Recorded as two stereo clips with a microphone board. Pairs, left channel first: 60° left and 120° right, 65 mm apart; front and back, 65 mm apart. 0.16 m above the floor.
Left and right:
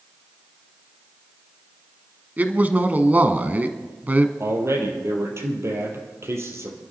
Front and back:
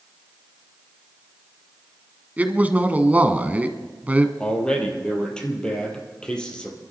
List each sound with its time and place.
2.4 s a man speaking: 150° right, 1.1 m
4.4 s a man speaking: 75° right, 4 m